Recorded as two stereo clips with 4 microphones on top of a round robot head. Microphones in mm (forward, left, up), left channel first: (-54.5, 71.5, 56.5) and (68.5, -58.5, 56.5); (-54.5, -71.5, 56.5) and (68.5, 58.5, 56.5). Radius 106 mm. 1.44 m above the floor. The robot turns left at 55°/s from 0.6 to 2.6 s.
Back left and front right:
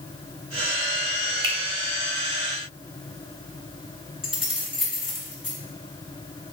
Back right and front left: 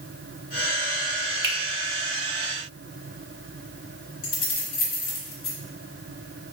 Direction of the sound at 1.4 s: 20° left.